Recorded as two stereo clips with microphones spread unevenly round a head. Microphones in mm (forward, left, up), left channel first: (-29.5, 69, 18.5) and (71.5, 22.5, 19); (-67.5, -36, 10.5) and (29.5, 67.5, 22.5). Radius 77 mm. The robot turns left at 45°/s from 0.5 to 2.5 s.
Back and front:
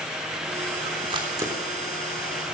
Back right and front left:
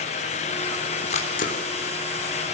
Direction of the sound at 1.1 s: 80° right.